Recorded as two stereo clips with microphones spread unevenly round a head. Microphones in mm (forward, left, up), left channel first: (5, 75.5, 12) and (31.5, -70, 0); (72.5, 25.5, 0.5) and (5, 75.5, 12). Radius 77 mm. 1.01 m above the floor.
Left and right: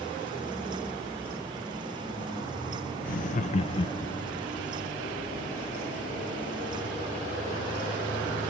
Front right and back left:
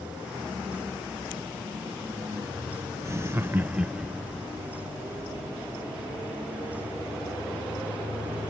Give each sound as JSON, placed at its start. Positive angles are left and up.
{"t": 3.0, "sound": "laughter", "azimuth_deg": 90}